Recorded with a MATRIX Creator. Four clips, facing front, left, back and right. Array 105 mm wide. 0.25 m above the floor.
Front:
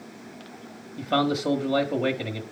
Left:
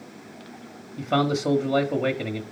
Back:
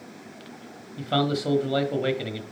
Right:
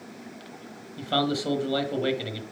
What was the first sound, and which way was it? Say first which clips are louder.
A man speaking: left 3 dB, front 1 dB; 75° left.